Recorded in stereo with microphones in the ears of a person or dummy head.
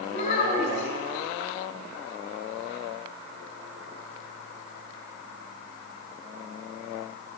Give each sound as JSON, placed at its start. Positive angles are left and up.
{"t": 0.1, "sound": "a child speaking", "side_deg": 35, "distance_m": 4.5}